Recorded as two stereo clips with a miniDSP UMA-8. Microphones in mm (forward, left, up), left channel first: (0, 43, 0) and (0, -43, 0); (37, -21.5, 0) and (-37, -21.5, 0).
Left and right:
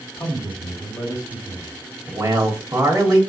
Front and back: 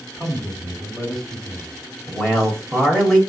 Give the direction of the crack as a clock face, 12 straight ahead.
I don't hear a crack.